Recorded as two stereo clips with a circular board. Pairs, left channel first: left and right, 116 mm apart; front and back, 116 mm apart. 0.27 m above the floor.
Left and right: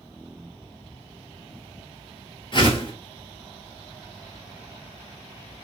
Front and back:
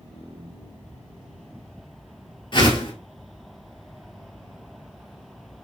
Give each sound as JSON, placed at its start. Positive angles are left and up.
{"t": 2.5, "sound": "a whoosh", "azimuth_deg": 45, "distance_m": 0.8}